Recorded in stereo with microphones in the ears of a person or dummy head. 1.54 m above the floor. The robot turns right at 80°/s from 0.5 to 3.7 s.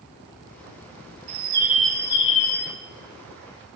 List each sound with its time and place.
1.3 s a bird: 45° right, 1.0 m; by 2.7 s 75° left, 1.0 m